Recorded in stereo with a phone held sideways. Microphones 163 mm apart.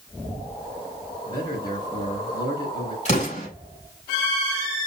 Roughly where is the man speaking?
Left.